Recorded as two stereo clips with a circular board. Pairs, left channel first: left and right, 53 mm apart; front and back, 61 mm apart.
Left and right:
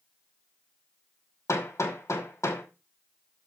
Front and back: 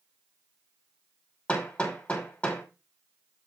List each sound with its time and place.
1.5 s hammering: 70° left, 5.5 m